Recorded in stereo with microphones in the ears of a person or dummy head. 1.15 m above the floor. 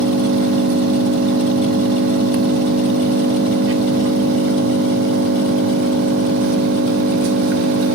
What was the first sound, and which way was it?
An engine running, 65° right (ahead or behind).